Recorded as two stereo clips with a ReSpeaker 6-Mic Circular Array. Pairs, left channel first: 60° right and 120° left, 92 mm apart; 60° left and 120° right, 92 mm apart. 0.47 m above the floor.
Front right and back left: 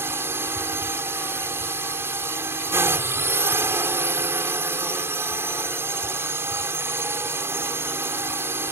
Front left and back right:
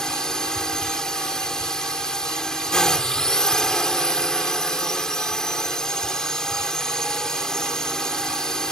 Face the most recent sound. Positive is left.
turn(degrees=135)